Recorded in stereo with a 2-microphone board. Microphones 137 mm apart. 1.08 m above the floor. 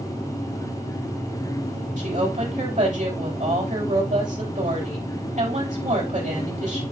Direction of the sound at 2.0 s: 65° right (ahead or behind).